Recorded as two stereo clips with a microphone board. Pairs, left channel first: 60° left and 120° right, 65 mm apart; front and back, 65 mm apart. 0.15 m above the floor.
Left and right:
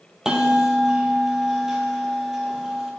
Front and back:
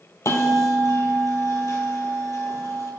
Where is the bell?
40° right, 1.1 m.